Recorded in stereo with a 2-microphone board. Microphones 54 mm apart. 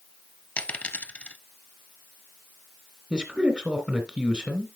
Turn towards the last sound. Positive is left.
turn(degrees=-20)  # may be behind; listen again after turning